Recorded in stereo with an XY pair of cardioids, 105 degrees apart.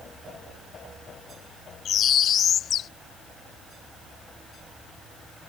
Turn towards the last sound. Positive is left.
turn(degrees=65)